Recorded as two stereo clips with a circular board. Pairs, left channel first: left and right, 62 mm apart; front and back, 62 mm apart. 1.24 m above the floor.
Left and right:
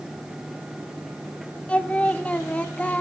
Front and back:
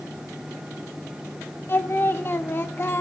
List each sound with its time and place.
1.7 s singing: 30° left, 0.7 m